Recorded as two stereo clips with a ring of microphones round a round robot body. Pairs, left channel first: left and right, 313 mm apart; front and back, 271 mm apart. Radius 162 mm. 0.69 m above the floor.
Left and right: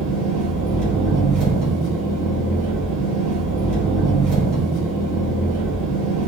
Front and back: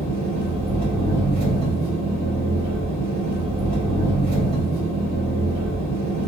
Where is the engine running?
85° right, 1.7 m.